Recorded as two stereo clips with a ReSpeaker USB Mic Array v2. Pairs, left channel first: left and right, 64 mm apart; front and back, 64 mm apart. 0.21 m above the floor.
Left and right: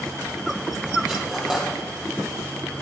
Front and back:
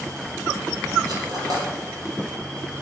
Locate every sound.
1.1 s cutlery clinking: 170° right, 4 m